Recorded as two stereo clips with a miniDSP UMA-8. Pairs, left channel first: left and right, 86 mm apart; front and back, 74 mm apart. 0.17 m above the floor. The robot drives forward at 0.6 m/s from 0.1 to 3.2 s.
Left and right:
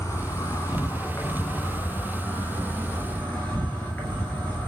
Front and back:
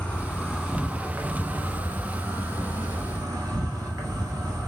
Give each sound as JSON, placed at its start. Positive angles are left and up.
{"t": 0.0, "sound": "an insect", "azimuth_deg": 65, "distance_m": 1.1}